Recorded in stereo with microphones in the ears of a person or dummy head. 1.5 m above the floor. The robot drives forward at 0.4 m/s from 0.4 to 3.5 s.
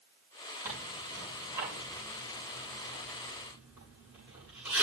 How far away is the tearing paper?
About 6.5 m.